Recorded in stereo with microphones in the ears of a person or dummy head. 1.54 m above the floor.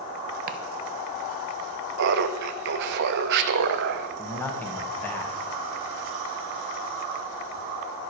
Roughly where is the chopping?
Right.